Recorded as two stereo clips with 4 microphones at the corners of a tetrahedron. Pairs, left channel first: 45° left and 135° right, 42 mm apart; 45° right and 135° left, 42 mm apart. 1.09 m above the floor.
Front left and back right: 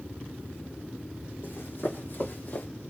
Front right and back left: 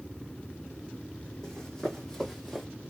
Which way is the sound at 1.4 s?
30° left.